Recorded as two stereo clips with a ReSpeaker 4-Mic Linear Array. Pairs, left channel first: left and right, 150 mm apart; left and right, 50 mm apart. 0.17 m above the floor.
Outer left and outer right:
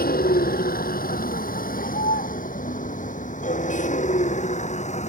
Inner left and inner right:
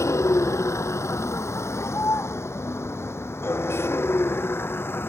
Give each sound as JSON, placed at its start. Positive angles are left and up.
{"t": 0.0, "sound": "a vehicle", "side_deg": 80}